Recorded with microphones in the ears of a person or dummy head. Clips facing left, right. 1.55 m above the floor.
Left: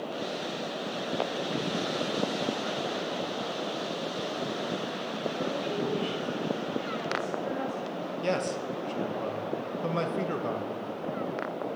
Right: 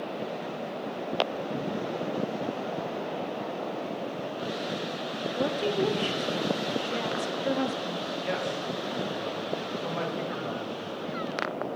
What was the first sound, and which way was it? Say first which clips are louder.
A woman speaking: right 6 dB; 55° right (ahead or behind).